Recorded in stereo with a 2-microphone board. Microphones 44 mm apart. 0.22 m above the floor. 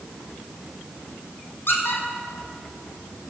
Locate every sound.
1.7 s a squeak: 55° left (ahead or behind), 3 m